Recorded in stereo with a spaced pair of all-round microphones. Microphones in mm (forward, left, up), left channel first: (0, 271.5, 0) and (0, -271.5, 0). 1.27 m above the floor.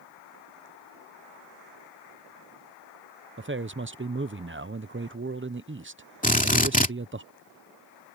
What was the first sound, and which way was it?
A man speaking, 25° right (ahead or behind).